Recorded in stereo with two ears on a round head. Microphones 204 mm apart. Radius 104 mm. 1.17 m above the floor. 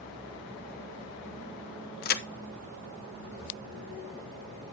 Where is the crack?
45° left (ahead or behind), 0.9 m.